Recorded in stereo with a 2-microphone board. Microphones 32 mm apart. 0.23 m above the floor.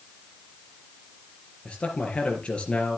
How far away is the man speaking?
About 3 m.